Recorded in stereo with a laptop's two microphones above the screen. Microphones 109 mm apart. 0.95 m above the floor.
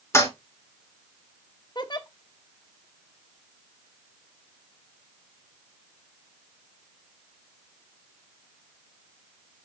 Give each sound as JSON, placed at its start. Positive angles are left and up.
{"t": 0.1, "sound": "a toilet flushing", "side_deg": 25, "distance_m": 4.0}
{"t": 1.8, "sound": "a giggle", "side_deg": 40, "distance_m": 0.8}